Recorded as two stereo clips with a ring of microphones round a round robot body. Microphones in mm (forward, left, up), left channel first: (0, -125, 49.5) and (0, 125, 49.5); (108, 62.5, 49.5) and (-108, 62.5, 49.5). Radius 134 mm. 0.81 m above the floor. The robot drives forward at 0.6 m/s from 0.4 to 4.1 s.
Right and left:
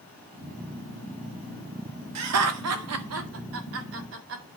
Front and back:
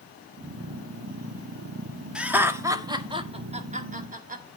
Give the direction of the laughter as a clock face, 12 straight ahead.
9 o'clock.